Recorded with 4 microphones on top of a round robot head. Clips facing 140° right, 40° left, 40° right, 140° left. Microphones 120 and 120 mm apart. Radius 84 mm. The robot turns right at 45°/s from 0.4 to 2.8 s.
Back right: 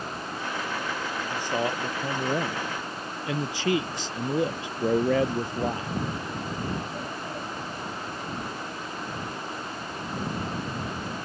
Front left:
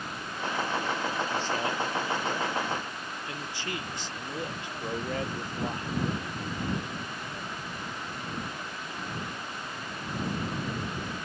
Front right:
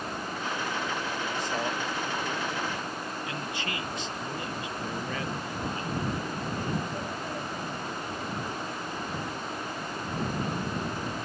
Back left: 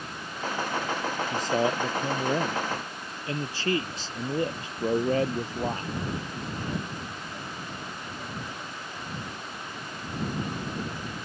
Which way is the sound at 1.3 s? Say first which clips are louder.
Back right 2 dB, back left 8 dB; 135° left.